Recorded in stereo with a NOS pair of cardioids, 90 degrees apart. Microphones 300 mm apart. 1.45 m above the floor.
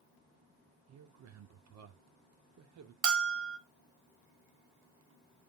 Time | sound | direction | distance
0.9 | a man speaking | 65° right | 1.1 m
3.0 | a bell | 50° right | 0.8 m